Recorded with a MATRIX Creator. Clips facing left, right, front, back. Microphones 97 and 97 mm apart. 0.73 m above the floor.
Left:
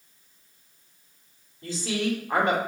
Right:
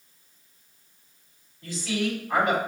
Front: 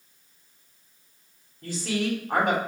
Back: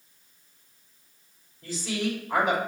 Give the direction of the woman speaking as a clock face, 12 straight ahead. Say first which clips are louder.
Even, front 2 dB; 11 o'clock.